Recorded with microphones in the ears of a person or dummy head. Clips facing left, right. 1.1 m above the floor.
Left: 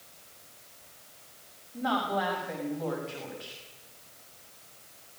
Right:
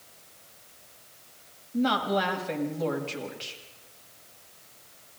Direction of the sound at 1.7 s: 40° right (ahead or behind).